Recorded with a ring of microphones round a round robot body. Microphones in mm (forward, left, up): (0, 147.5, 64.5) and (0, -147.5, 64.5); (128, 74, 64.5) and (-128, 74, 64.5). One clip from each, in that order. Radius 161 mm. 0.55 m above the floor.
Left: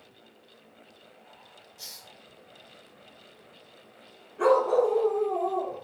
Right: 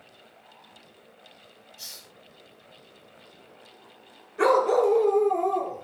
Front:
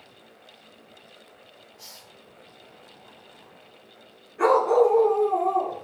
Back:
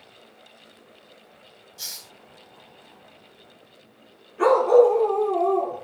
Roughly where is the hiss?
Behind.